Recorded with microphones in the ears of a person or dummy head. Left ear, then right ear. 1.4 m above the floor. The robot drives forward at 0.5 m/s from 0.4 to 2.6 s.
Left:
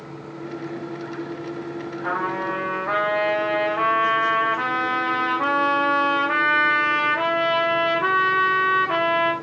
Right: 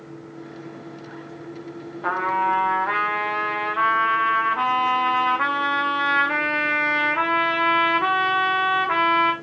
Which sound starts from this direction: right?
A trumpet, at 2.0 s.